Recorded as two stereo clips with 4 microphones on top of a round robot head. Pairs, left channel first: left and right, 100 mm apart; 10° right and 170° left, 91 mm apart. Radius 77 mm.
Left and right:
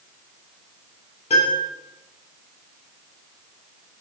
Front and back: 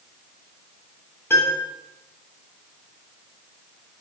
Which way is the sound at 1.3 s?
55° left.